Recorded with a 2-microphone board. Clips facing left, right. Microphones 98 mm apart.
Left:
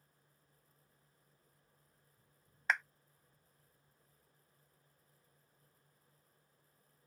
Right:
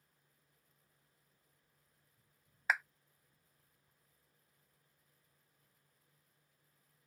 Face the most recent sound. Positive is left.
turn(degrees=-5)  # may be behind; listen again after turning